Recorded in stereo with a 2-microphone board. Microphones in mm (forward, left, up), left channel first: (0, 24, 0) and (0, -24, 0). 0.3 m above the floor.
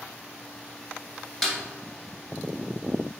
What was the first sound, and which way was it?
A snare drum, centre (ahead or behind).